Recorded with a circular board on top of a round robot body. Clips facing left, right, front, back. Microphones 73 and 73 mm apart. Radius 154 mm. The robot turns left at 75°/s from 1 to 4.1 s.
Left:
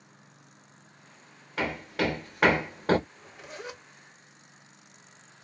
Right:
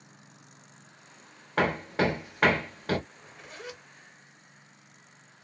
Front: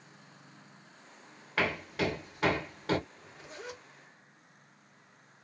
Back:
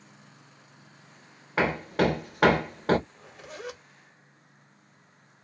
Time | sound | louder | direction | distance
1.6 | hammering | right 3 dB, back 7 dB | 115° right | 0.8 m
3.1 | a zipper | left 2 dB, back 4 dB | 160° right | 1.4 m